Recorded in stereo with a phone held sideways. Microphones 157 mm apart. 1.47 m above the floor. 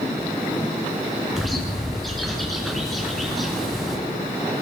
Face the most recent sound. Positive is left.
turn(degrees=0)  # may be behind; listen again after turning